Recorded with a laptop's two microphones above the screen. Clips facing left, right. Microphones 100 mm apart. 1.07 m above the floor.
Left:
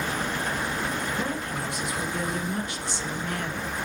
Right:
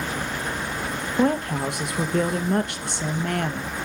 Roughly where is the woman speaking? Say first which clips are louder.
Right 8 dB; right.